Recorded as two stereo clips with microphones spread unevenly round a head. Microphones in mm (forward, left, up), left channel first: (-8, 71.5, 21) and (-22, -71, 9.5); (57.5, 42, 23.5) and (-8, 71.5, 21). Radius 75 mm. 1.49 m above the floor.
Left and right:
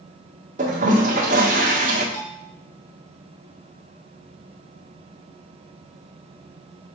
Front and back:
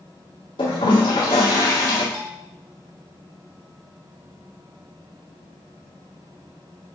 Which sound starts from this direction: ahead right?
A toilet flushing, at 0.6 s.